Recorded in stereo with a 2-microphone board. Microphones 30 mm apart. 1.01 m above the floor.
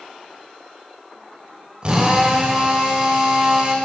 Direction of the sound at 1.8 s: 30° right (ahead or behind).